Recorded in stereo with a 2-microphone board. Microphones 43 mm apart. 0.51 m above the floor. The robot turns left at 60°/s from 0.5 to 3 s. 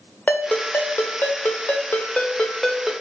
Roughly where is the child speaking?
No child speaking in this recording.